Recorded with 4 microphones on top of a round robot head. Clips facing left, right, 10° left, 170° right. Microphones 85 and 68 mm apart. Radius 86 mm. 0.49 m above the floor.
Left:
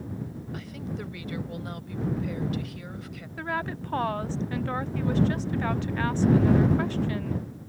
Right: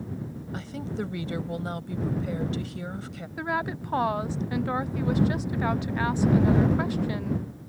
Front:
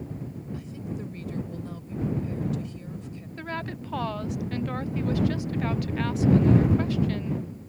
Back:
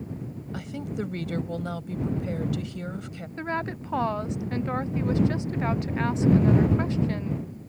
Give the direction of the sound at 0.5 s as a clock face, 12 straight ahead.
5 o'clock.